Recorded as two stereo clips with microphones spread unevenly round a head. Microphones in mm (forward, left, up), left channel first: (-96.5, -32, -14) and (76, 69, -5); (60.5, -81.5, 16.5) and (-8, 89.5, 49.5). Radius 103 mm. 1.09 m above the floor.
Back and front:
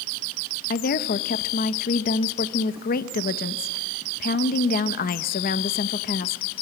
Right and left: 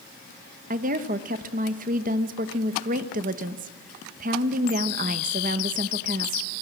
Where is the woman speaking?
165° left, 1.0 m.